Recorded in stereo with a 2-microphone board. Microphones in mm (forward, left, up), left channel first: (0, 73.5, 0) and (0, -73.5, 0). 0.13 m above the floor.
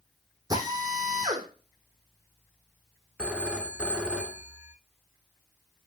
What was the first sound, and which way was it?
A drill, 25° right (ahead or behind).